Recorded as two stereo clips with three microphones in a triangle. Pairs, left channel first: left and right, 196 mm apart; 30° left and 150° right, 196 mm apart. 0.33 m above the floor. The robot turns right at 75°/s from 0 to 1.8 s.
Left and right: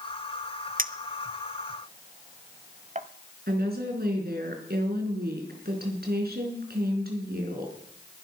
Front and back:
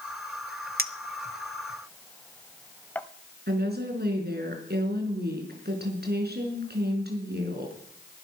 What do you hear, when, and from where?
0.8 s a clink: 125° right, 0.8 m; by 3.1 s 50° right, 0.8 m
3.5 s a woman speaking: 120° right, 4.5 m